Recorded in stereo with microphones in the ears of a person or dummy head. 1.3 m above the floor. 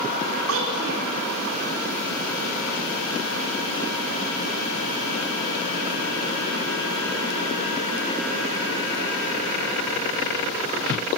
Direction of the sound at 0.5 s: 80° right.